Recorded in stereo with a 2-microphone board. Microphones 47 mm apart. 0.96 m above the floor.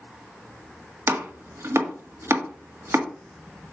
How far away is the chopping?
About 1.5 m.